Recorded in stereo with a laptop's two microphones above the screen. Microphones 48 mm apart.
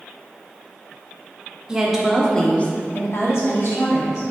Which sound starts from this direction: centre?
A woman speaking, at 1.7 s.